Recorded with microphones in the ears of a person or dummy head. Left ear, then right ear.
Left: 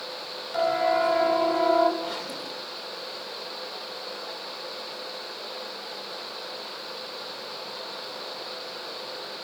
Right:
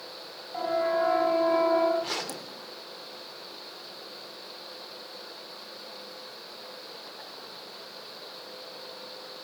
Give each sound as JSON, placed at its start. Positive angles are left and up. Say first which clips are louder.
{"t": 0.5, "sound": "a siren", "louder": "left 4 dB", "side_deg": 40, "distance_m": 8.0}
{"t": 2.0, "sound": "a zipper", "louder": "left 1 dB", "side_deg": -65, "distance_m": 3.0}